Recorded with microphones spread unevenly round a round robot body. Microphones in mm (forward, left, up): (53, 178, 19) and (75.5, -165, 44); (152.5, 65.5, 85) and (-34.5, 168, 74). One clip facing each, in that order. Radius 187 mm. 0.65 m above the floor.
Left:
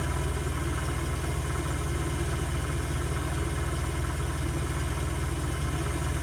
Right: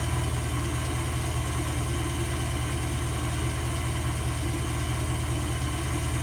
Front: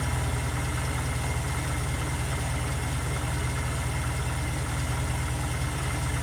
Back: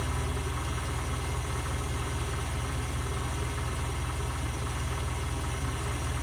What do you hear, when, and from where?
0.0 s an engine running: 20° right, 3 m